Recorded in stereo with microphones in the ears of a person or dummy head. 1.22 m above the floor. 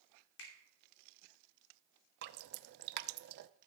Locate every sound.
0.4 s a finger snap: 85° left, 3 m
2.2 s dripping: 60° right (ahead or behind), 0.6 m